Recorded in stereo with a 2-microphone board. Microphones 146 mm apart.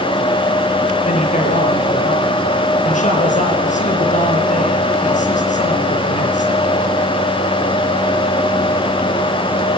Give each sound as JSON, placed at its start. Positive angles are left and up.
{"t": 1.0, "sound": "a man speaking", "side_deg": 55, "distance_m": 5.5}